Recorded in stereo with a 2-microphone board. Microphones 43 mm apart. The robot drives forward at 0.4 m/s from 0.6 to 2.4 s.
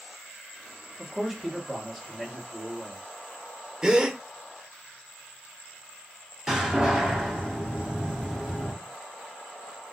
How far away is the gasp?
About 0.5 m.